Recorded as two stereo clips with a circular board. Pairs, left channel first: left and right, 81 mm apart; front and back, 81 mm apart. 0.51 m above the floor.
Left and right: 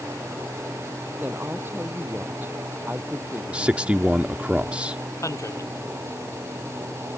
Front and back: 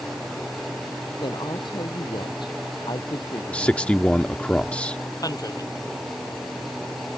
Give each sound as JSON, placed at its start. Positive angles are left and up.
{"t": 1.2, "sound": "a woman speaking", "azimuth_deg": -25}
{"t": 3.5, "sound": "a man speaking", "azimuth_deg": -45}
{"t": 5.2, "sound": "a man speaking", "azimuth_deg": 40}